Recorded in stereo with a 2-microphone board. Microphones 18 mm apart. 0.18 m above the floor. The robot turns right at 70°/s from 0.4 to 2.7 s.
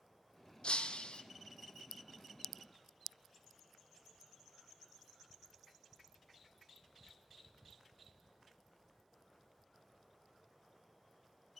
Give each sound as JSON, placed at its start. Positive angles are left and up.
{"t": 0.6, "sound": "breaking glass", "azimuth_deg": 70, "distance_m": 0.9}